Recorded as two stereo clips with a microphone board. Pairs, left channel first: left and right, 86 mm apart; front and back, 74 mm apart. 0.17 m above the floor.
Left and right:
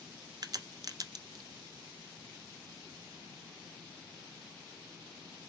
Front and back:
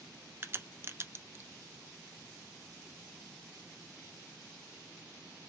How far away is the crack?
About 0.6 m.